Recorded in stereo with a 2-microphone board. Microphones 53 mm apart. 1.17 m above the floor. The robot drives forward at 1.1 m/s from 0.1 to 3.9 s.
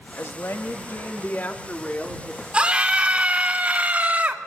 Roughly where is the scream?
Centre.